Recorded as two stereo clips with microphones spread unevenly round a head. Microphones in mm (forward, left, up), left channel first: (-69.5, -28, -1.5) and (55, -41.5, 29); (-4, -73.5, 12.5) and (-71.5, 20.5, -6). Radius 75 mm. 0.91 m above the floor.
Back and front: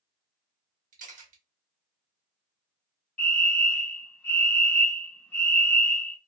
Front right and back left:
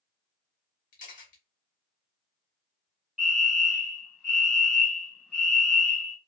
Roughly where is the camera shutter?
Ahead right.